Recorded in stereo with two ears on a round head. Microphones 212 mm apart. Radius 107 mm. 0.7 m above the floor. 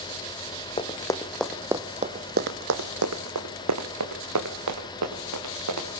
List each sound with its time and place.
0.8 s running footsteps: 20° left (ahead or behind), 2.0 m; by 5.9 s 75° right (ahead or behind), 4.5 m